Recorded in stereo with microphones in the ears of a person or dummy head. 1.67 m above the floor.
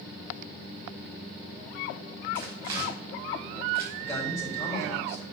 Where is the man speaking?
15° left (ahead or behind), 4 m.